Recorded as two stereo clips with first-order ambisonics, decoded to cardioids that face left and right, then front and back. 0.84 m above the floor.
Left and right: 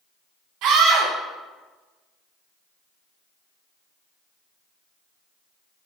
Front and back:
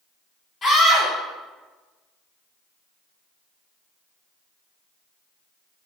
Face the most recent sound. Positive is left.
turn(degrees=-70)